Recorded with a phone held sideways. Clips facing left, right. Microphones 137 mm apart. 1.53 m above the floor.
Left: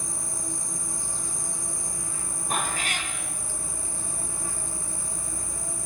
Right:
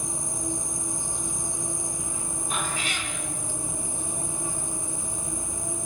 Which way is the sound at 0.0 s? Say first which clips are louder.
Right 4 dB; 20° right (ahead or behind).